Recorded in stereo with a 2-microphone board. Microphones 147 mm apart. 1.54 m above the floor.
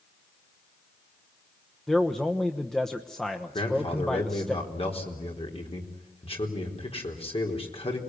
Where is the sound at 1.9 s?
5° left (ahead or behind), 1.1 m.